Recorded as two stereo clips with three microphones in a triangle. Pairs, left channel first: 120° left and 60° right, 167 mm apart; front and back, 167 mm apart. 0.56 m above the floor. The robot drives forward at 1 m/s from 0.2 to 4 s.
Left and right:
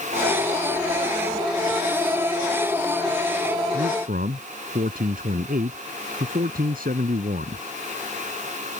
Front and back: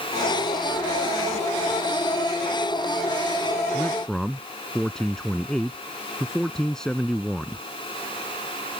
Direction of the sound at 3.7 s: 85° right.